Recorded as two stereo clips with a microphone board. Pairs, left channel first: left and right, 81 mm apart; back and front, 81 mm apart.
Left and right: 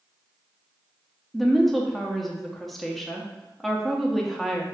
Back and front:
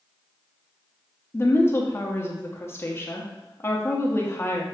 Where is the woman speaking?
175° left, 0.6 m.